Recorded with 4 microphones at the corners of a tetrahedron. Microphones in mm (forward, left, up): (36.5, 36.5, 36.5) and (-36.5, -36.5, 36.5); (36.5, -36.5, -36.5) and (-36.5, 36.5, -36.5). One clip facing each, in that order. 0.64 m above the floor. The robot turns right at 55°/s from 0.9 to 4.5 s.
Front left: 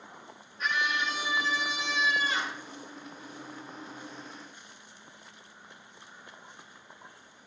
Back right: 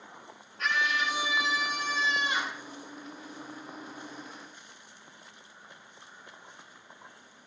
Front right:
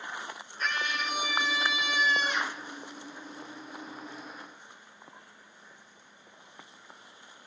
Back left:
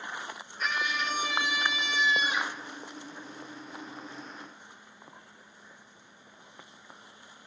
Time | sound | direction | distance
0.6 | a scream | 140° right | 7.5 m